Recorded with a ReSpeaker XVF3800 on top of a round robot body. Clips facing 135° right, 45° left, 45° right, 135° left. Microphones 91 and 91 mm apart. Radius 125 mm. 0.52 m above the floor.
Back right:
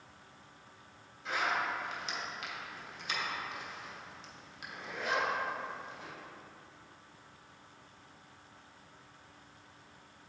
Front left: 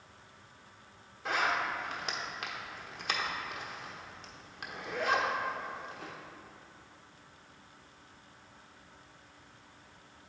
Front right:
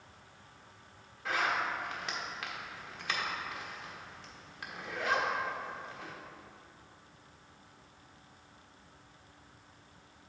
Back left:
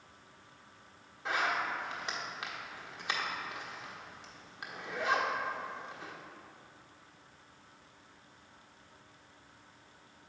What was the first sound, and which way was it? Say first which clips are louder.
A zipper: front left 2 dB, front right 1 dB; 70° left.